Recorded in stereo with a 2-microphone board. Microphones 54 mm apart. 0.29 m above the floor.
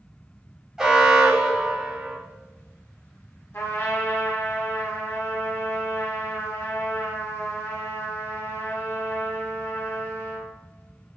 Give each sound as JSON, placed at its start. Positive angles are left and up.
{"t": 0.8, "sound": "an alarm", "side_deg": -10, "distance_m": 1.0}
{"t": 3.5, "sound": "a trumpet", "side_deg": 50, "distance_m": 0.9}